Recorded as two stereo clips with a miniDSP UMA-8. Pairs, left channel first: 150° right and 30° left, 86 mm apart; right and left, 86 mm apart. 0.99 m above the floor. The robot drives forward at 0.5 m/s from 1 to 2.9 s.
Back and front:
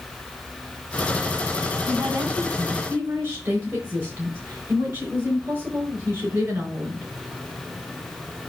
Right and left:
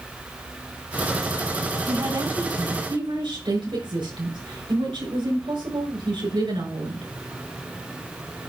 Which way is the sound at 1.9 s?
90° left.